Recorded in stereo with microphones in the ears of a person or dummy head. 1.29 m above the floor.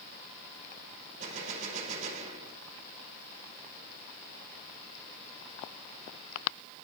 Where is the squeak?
I don't hear a squeak.